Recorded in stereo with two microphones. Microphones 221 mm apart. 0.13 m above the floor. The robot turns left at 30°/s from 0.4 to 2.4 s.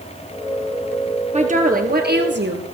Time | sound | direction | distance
1.3 | a woman speaking | 35° right | 2.5 m